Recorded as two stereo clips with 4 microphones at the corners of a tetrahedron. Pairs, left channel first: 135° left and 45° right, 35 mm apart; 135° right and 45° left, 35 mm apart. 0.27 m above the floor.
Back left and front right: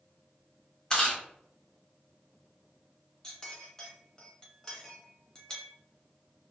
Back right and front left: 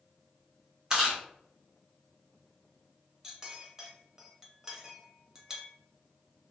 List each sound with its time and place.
0.9 s chewing: 90° left, 1.2 m
3.2 s a clink: 95° left, 0.8 m